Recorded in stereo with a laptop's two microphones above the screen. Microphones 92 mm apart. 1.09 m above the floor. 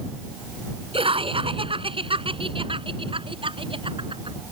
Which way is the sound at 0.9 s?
85° right.